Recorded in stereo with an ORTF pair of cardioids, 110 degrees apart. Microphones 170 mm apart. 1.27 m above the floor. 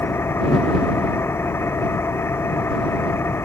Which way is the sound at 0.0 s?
15° left.